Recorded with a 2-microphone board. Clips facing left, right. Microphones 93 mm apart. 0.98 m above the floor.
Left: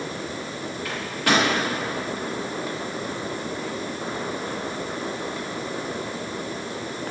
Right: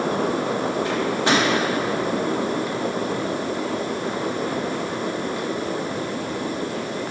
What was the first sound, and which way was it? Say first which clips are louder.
A microwave: even; 25° right (ahead or behind).